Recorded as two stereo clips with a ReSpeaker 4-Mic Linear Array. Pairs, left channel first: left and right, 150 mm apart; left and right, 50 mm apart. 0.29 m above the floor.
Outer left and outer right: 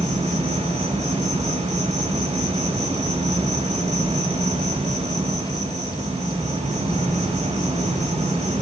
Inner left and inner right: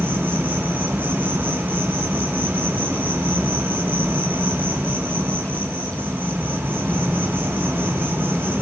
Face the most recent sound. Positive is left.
turn(degrees=-50)  # may be behind; listen again after turning